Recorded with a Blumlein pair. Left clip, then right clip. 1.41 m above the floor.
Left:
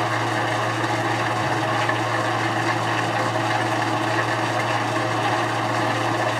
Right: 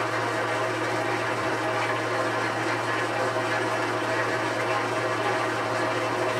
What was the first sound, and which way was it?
An engine running, 65° left.